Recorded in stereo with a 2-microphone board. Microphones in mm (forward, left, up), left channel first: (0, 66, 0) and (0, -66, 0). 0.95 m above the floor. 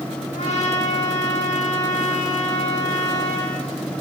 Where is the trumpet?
60° left (ahead or behind), 9.5 m.